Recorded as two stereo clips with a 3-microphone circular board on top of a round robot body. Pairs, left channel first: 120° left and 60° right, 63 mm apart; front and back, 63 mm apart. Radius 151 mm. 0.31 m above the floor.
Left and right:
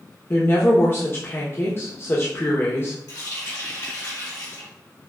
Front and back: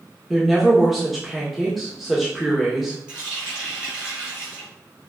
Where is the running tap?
105° left, 1.9 m.